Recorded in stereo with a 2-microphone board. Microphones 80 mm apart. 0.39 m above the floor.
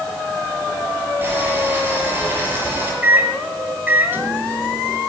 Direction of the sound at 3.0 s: 25° right (ahead or behind).